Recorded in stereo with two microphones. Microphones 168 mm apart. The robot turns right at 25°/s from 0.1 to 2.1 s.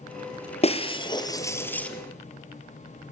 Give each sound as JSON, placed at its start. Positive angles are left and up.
{"t": 0.6, "sound": "breaking glass", "side_deg": 40, "distance_m": 1.8}